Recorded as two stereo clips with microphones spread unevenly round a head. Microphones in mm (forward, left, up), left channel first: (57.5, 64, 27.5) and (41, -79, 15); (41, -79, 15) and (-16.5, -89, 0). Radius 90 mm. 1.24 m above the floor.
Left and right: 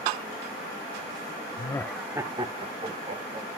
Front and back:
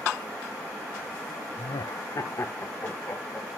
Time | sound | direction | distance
1.6 | laughter | 30° left | 0.7 m